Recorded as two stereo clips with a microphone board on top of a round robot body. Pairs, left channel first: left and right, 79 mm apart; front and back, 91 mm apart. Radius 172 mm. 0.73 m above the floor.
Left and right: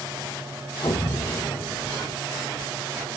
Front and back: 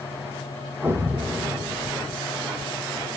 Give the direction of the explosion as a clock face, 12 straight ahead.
9 o'clock.